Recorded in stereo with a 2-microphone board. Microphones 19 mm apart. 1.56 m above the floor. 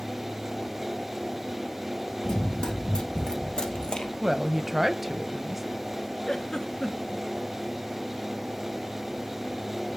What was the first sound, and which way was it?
Running footsteps, 50° left (ahead or behind).